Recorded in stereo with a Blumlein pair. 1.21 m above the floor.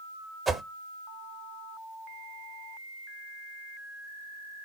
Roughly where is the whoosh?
Ahead.